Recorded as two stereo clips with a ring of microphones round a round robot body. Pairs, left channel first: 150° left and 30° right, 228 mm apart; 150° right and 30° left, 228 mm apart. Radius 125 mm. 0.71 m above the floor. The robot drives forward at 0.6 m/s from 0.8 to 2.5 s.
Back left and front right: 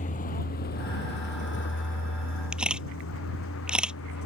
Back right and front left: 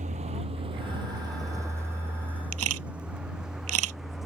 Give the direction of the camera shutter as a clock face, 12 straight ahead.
10 o'clock.